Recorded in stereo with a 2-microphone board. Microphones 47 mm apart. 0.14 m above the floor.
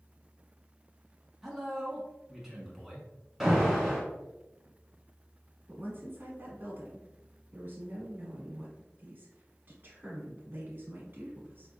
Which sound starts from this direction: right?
A woman speaking, at 5.7 s.